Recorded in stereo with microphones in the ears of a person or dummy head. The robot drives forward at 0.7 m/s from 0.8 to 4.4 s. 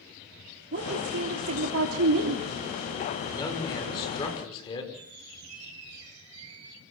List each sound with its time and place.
0.7 s a woman speaking: 65° right (ahead or behind), 3 m; by 2.5 s 80° right, 3 m
3.2 s a man speaking: 25° left (ahead or behind), 6.5 m
4.9 s a squeak: 75° right (ahead or behind), 7.5 m